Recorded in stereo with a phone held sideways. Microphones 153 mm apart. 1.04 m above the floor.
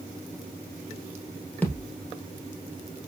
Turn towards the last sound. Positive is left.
turn(degrees=10)  # may be behind; listen again after turning